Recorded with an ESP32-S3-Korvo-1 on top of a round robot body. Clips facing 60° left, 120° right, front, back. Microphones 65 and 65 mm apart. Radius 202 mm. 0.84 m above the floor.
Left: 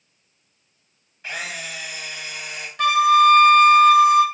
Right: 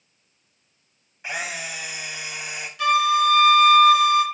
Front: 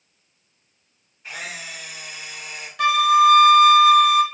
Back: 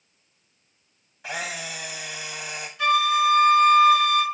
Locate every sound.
1.2 s a camera shutter: 165° left, 0.9 m
2.8 s a flute: 20° left, 1.2 m